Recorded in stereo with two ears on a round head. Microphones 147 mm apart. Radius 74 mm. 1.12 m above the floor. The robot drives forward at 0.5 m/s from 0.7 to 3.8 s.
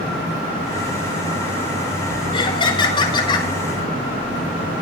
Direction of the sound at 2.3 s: 30° left (ahead or behind).